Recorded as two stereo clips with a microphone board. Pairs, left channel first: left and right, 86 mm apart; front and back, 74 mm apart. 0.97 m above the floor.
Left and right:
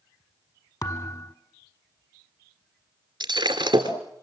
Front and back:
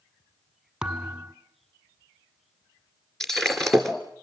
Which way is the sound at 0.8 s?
110° left.